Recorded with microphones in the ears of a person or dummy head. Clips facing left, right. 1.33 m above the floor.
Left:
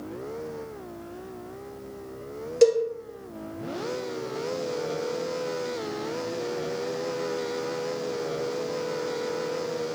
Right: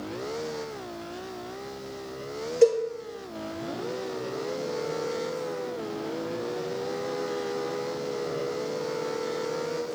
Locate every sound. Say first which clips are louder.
2.6 s a cowbell: left 1 dB; 50° left (ahead or behind), 0.8 m